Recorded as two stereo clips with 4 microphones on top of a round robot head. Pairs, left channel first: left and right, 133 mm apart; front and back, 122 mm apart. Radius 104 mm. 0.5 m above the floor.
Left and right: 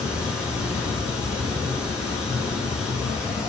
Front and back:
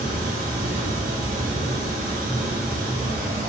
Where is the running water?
175° right, 1.1 m.